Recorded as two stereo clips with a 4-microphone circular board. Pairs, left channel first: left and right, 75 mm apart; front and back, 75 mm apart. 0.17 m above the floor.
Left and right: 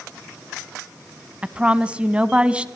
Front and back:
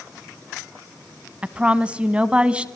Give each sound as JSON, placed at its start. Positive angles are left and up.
{"t": 1.4, "sound": "a woman speaking", "azimuth_deg": -135, "distance_m": 1.3}